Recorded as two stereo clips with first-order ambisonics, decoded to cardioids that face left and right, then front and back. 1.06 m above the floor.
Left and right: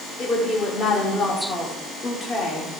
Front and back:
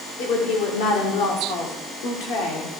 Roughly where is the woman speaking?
Ahead.